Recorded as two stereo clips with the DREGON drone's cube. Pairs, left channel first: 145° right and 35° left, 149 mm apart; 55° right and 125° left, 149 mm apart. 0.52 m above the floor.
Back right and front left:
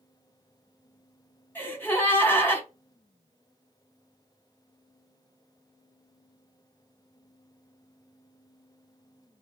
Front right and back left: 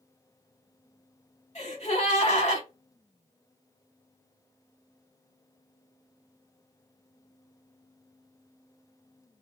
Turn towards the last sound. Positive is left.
turn(degrees=-75)